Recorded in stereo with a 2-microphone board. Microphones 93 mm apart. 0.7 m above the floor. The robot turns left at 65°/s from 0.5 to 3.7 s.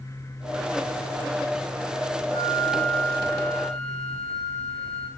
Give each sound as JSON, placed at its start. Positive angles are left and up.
{"t": 2.3, "sound": "a flute", "azimuth_deg": 50, "distance_m": 8.5}